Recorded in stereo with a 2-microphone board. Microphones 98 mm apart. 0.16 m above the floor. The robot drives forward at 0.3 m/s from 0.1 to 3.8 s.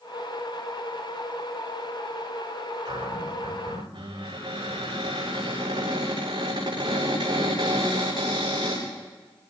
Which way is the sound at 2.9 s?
60° right (ahead or behind).